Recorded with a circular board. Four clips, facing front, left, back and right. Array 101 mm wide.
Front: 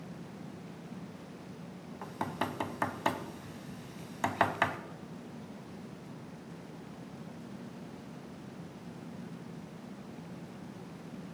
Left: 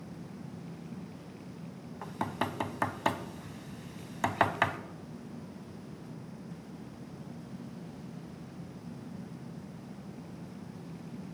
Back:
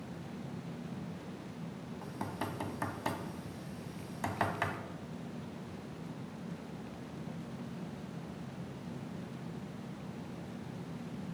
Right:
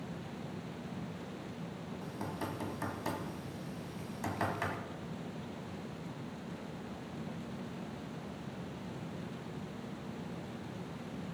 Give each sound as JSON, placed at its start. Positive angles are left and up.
{"t": 2.0, "sound": "knocking", "azimuth_deg": 60, "distance_m": 1.2}